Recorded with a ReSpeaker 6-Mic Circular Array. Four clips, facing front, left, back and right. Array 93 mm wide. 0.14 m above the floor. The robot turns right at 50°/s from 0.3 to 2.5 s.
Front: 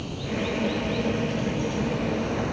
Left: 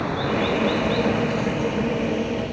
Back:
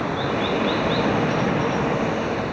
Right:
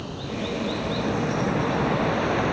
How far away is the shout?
No shout in this recording.